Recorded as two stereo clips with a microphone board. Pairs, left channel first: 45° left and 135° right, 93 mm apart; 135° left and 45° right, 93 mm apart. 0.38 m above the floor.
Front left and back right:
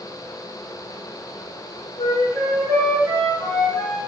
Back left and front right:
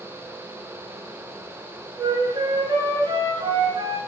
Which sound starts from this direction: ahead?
A flute, at 2.0 s.